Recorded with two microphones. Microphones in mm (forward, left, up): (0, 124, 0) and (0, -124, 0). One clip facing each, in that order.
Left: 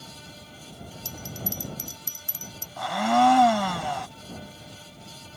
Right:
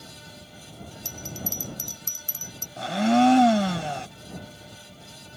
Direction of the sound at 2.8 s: 30° right (ahead or behind).